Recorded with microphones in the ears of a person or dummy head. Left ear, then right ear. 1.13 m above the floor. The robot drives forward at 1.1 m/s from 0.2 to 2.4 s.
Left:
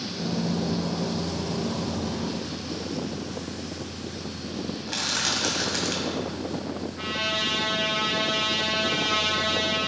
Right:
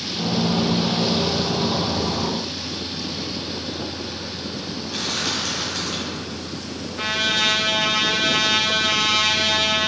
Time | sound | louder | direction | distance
4.9 | crushing | right 1 dB | 55° left (ahead or behind) | 1.8 m
7.0 | a trumpet | right 7 dB | 20° right (ahead or behind) | 0.9 m